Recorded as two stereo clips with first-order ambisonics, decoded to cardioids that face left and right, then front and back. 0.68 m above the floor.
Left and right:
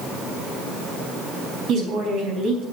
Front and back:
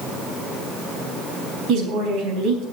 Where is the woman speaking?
140° right, 4 m.